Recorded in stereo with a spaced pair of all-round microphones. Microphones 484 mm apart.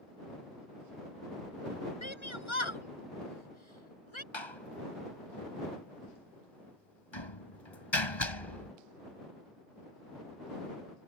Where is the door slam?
65° left (ahead or behind).